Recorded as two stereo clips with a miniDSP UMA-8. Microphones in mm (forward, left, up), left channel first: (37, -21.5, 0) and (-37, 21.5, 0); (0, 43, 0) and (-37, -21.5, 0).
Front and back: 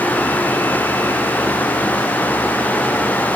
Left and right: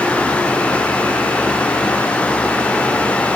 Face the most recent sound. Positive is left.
No sound to turn to.